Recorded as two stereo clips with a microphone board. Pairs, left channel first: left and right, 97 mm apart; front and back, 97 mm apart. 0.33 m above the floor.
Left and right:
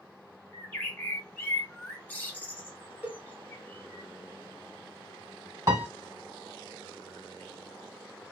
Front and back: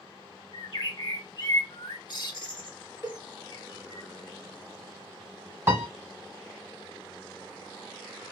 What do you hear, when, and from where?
0.5 s a bird: 25° left, 1.0 m
3.0 s a cowbell: 150° right, 1.3 m
5.7 s a piano: 130° right, 1.2 m